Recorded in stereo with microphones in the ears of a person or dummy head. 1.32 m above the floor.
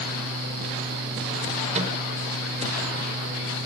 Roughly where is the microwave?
Right.